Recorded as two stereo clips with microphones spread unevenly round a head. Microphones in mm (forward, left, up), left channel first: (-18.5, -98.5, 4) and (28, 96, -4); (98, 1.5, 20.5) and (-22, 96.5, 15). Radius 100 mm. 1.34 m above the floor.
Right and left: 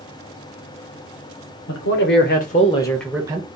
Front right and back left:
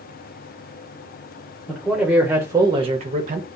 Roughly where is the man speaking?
Behind right.